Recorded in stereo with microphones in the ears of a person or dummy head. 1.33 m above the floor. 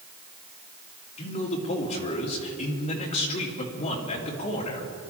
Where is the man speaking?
40° left (ahead or behind), 3 m.